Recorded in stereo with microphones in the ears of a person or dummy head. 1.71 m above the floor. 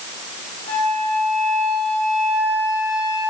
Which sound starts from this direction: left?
A flute, at 0.7 s.